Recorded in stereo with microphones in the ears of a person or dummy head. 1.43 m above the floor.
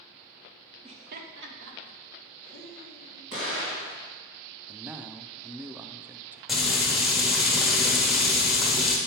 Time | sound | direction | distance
0.8 | laughter | 30° right (ahead or behind) | 0.7 m
3.3 | an explosion | 70° right (ahead or behind) | 3 m
4.7 | a man speaking | 15° right (ahead or behind) | 0.5 m
6.5 | frying | 5° right (ahead or behind) | 1.1 m